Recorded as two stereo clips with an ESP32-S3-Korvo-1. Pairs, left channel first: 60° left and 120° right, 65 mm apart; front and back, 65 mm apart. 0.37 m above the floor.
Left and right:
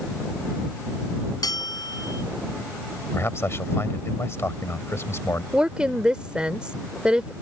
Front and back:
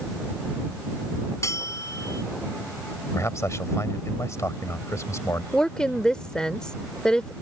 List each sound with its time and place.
1.4 s a bell: 40° left
3.1 s a man speaking: 25° left
5.5 s a woman speaking: 70° right